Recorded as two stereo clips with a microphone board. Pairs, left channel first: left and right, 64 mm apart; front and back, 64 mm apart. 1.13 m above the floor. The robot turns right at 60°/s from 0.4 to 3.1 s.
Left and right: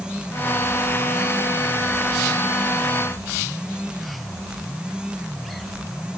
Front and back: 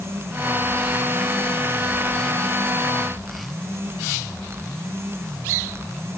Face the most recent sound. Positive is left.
No sound to turn to.